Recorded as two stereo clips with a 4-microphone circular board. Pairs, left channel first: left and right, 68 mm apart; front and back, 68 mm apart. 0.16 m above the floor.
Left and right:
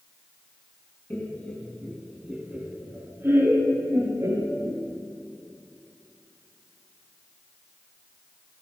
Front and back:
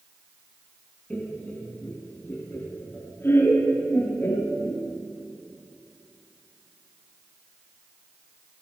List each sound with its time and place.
1.1 s laughter: 55° left, 1.2 m; by 4.8 s 55° right, 2.5 m